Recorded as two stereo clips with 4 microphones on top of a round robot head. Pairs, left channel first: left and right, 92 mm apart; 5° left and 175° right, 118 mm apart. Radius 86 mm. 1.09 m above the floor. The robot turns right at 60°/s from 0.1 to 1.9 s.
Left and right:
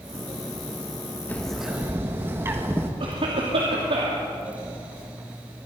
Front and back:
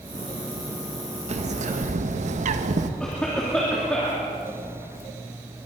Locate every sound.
1.3 s a bird: 165° left, 1.2 m; by 2.9 s 160° right, 1.2 m
3.0 s a cough: 80° right, 2.5 m